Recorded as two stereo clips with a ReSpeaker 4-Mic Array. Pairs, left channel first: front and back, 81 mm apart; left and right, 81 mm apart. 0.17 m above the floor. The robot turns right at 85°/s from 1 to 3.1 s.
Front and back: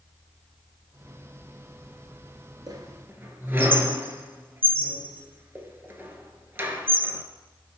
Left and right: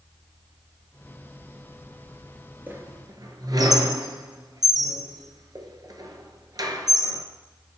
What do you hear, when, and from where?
2.7 s a squeak: 155° right, 1.1 m; by 7.2 s 120° right, 1.1 m